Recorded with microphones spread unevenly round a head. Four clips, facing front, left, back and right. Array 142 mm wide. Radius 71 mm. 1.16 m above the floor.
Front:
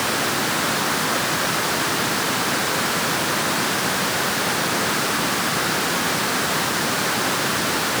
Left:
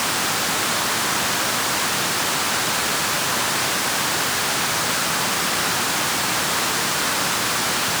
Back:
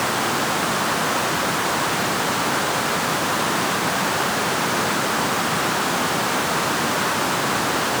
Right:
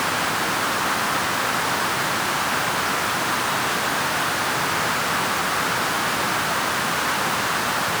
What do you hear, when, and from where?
Only background noise.